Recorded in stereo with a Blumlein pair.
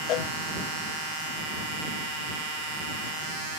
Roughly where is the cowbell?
Ahead left.